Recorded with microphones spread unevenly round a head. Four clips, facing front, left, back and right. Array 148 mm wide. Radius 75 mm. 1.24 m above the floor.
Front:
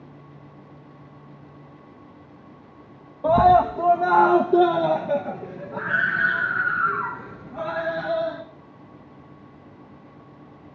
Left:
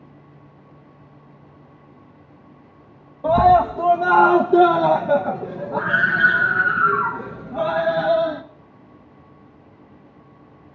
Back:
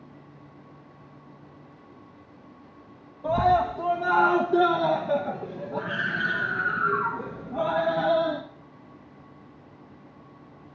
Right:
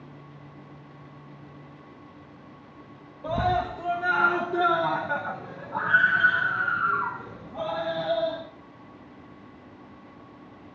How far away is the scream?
About 1.5 m.